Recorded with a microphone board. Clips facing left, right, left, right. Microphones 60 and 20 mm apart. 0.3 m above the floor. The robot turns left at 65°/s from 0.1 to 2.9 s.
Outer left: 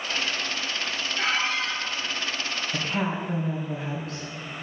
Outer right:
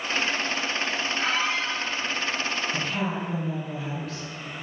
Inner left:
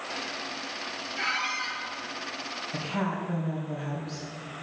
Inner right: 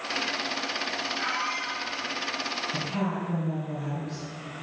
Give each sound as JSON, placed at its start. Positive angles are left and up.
{"t": 1.2, "sound": "a squeak", "azimuth_deg": 95, "distance_m": 3.0}
{"t": 2.7, "sound": "a woman speaking", "side_deg": 30, "distance_m": 2.0}